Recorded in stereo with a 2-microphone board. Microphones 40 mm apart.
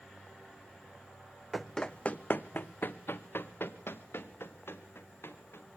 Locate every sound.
1.5 s running footsteps: 5° right (ahead or behind), 0.6 m; by 5.8 s 80° left, 3 m